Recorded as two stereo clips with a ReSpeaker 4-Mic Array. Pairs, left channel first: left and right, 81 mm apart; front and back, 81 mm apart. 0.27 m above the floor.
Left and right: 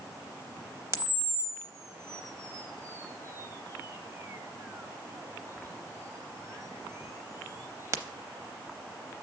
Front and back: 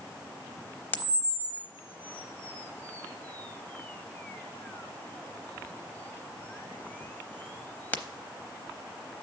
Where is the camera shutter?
55° right, 0.6 m.